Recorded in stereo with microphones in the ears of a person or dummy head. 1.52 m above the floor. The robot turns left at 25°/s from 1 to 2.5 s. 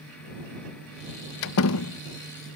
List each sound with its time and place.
1.4 s a door slam: 65° left (ahead or behind); by 2.0 s 75° left (ahead or behind)